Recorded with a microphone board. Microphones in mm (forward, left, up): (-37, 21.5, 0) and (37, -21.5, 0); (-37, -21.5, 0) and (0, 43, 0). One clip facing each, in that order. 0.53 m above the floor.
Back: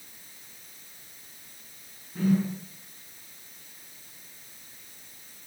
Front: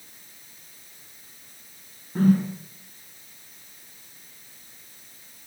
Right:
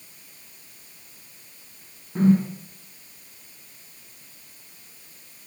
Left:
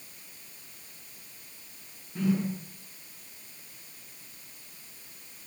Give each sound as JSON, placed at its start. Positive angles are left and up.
{"t": 2.1, "sound": "a whoosh", "azimuth_deg": -70, "distance_m": 5.5}